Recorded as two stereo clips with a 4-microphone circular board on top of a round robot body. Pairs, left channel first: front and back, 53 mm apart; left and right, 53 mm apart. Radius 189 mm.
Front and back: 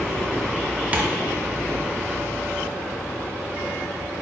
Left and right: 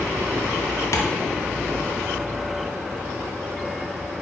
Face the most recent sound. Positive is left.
turn(degrees=115)